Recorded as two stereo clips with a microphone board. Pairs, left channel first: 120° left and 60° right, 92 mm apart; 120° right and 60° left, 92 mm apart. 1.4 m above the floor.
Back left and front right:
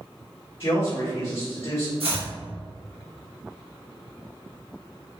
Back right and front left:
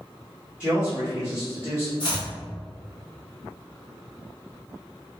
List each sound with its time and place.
0.6 s a man speaking: 140° left, 1.3 m
2.0 s chopping: 80° right, 1.2 m